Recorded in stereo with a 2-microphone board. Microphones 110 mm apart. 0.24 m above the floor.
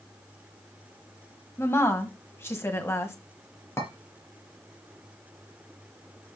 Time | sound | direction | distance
1.6 | a woman speaking | 20° left (ahead or behind) | 1.5 m
3.8 | a clink | 25° left (ahead or behind) | 3.5 m